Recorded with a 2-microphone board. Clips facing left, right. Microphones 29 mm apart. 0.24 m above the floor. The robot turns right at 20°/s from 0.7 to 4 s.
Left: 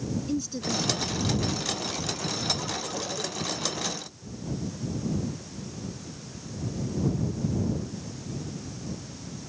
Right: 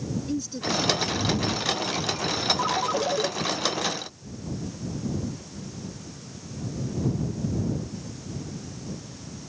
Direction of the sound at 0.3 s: Centre (ahead or behind).